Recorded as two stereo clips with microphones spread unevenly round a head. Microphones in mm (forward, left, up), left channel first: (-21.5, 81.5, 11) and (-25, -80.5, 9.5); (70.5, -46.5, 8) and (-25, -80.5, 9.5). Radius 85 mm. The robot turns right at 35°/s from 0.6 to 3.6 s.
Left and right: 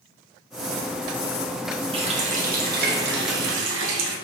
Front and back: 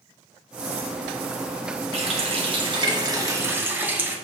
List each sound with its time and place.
1.9 s a running tap: 150° right, 1.3 m; by 4.2 s 90° right, 1.3 m